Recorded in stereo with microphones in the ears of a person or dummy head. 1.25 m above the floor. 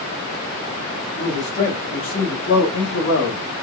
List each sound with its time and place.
1.2 s a man speaking: 35° left (ahead or behind), 2 m; by 3.4 s 75° left (ahead or behind), 1.3 m